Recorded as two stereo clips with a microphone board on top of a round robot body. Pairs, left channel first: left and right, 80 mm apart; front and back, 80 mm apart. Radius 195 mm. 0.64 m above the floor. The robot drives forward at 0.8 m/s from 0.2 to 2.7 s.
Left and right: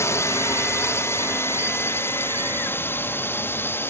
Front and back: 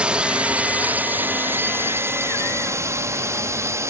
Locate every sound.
0.0 s a drone: 110° left; by 3.9 s 140° left